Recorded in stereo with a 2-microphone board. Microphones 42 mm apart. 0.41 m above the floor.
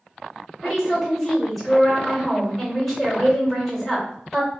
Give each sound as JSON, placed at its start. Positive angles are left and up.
{"t": 0.6, "sound": "a woman speaking", "side_deg": 0, "distance_m": 1.5}